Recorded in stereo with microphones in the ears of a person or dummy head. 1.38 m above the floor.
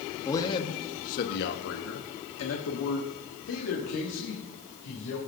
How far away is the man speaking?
About 1.4 m.